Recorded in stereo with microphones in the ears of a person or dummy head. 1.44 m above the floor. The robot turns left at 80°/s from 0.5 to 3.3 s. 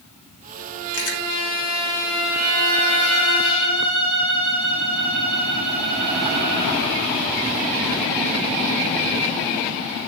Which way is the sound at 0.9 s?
75° left (ahead or behind).